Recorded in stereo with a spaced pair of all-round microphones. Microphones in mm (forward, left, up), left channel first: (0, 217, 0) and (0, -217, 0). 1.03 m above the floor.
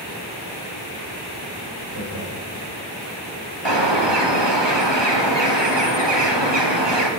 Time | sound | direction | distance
1.9 | laughter | 65° left (ahead or behind) | 3.5 m
3.6 | a bird | 65° right (ahead or behind) | 2 m